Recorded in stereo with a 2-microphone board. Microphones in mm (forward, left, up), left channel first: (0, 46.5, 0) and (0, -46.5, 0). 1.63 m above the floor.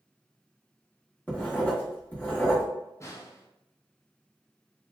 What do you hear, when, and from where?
1.3 s writing: 20° left (ahead or behind), 1.2 m
3.0 s a snare drum: 30° left (ahead or behind), 0.5 m